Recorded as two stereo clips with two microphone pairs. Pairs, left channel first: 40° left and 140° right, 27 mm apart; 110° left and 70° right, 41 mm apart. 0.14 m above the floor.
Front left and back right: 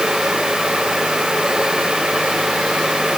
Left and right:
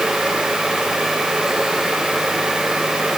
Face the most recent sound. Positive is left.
No sound to turn to.